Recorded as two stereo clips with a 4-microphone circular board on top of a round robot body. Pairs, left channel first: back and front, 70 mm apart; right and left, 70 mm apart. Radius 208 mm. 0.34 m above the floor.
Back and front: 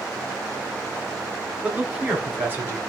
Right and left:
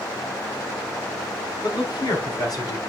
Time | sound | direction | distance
1.6 | a man speaking | 75° right | 4.5 m